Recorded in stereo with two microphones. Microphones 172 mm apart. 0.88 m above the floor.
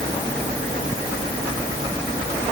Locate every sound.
Only background noise.